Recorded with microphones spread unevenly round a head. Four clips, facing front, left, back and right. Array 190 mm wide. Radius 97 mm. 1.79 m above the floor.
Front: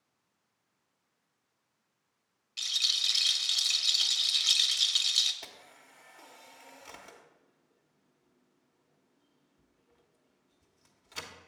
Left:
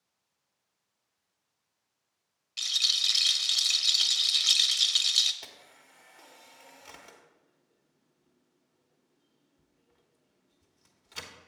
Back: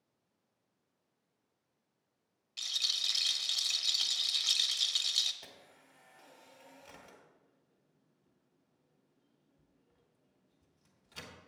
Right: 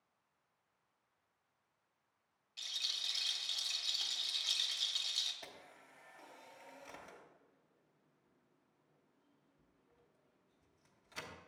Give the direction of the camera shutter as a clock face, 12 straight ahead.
11 o'clock.